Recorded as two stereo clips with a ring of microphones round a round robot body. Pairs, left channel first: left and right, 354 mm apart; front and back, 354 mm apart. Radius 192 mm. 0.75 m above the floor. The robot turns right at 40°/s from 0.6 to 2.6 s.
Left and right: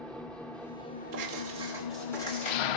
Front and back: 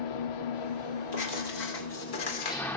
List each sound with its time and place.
0.0 s an engine running: 5° left, 0.7 m; by 2.8 s 85° left, 0.7 m
1.1 s writing: 35° right, 2.5 m; by 2.6 s 25° left, 2.5 m